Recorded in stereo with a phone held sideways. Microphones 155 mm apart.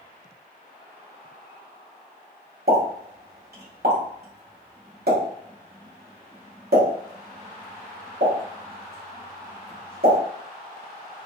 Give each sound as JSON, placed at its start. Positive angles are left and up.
{"t": 2.7, "sound": "a pop", "side_deg": -70, "distance_m": 2.0}